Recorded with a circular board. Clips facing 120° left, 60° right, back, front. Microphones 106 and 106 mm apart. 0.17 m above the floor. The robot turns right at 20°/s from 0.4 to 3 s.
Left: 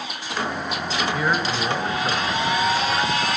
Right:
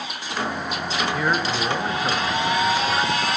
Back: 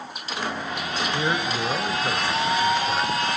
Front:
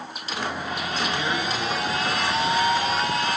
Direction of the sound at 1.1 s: 150° right.